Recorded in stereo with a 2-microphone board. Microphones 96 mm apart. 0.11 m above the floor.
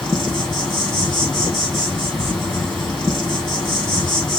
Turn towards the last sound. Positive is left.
turn(degrees=-5)  # may be behind; listen again after turning